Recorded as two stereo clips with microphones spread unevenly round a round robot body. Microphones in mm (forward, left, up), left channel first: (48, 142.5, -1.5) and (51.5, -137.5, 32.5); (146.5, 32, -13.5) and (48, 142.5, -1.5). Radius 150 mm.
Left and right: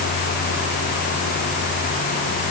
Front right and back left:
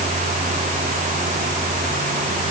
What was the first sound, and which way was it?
Only background noise.